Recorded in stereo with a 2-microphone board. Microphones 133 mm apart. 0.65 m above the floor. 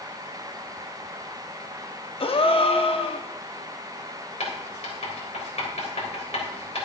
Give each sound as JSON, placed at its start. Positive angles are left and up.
{"t": 2.2, "sound": "a gasp", "side_deg": 50, "distance_m": 0.6}
{"t": 4.4, "sound": "writing", "side_deg": 60, "distance_m": 3.5}